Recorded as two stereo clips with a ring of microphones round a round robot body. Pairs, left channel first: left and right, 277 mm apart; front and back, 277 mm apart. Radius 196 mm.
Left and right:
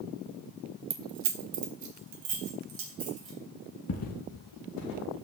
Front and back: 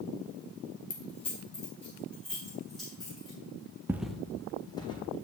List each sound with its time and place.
0.9 s keys jangling: 35° right, 0.7 m; by 3.4 s 90° right, 3 m
3.9 s footsteps: 100° left, 0.7 m; by 5.2 s 75° left, 2.0 m